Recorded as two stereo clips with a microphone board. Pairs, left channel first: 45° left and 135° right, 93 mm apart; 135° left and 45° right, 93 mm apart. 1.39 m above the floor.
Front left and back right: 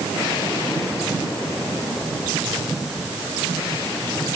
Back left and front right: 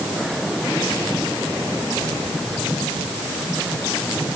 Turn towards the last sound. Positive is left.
No sound to turn to.